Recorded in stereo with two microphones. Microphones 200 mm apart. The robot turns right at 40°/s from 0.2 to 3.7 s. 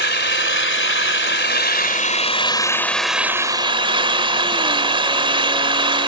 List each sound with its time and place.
0.0 s an engine running: 65° left; by 6.1 s 155° right